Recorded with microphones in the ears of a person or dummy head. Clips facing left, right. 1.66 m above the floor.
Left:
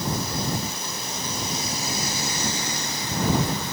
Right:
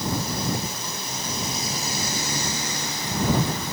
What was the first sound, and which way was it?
Only background noise.